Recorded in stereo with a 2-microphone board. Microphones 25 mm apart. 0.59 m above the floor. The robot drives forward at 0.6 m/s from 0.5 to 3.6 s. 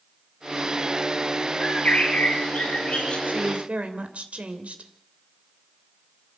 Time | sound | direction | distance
1.6 | a bird | 55° left (ahead or behind) | 5.5 m
3.3 | a woman speaking | 65° right (ahead or behind) | 2.5 m